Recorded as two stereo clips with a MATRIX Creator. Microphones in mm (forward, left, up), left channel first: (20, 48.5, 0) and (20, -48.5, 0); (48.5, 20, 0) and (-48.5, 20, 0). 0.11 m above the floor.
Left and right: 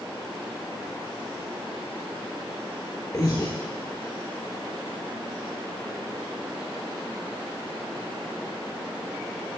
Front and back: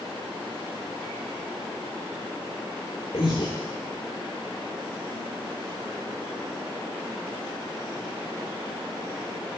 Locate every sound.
3.1 s breathing: 30° left, 3 m